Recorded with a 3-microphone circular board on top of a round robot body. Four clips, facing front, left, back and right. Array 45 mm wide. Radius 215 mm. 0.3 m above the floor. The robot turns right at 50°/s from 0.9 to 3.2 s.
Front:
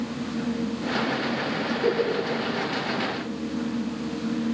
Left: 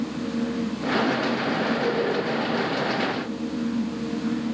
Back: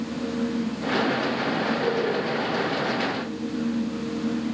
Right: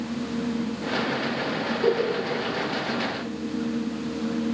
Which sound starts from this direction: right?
A giggle, at 1.8 s.